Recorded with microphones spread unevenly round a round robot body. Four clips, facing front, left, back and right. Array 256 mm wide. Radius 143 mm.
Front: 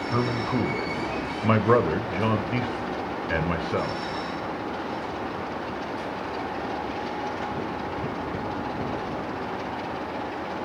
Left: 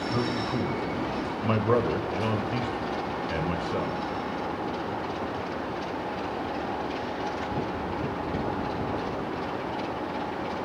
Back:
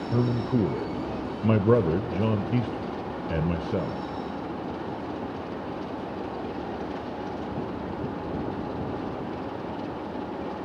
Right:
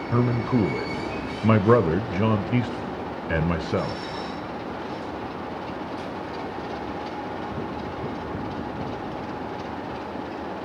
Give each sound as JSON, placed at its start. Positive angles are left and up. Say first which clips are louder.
{"t": 0.1, "sound": "a man speaking", "louder": "right 8 dB, back 1 dB", "azimuth_deg": -115, "distance_m": 0.9}